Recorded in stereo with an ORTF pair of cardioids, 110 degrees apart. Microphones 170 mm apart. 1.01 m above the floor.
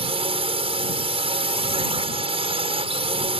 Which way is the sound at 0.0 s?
35° right.